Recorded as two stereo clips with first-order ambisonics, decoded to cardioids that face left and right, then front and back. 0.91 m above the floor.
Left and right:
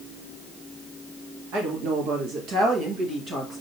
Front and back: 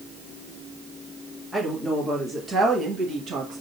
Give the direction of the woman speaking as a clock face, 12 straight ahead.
3 o'clock.